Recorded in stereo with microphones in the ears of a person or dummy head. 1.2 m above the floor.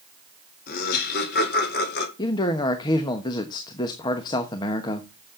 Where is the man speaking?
25° left (ahead or behind), 1.1 m.